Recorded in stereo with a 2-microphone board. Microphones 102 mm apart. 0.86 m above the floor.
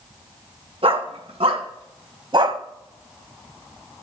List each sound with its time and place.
0.8 s a dog barking: 70° right (ahead or behind), 2 m; by 2.6 s 45° right (ahead or behind), 1.1 m